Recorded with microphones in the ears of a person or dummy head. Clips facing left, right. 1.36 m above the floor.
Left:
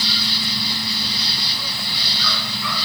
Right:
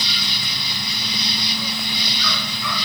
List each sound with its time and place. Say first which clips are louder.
0.0 s an insect: left 4 dB; 20° right (ahead or behind)